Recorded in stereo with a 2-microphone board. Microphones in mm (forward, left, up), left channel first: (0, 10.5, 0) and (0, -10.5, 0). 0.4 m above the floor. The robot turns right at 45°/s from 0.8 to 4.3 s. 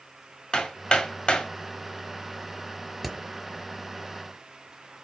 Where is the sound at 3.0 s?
Centre (ahead or behind), 1.4 m; by 3.2 s 5° left (ahead or behind), 1.4 m.